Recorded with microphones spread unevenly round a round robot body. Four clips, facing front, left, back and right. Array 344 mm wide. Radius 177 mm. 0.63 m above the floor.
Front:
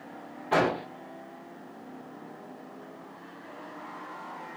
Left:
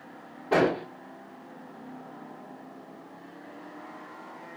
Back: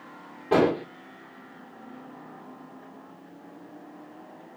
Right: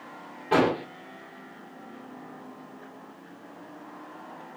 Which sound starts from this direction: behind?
An explosion, at 0.5 s.